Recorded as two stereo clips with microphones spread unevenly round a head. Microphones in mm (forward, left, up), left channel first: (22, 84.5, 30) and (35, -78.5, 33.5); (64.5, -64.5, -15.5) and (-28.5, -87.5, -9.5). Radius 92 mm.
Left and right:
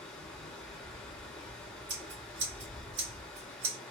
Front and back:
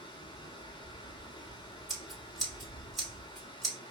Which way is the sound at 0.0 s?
15° left.